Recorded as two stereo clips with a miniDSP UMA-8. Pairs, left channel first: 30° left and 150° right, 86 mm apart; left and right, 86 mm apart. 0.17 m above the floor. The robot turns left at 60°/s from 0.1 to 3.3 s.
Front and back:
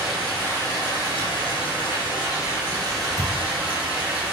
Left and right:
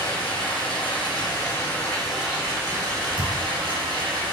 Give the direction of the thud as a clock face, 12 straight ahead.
2 o'clock.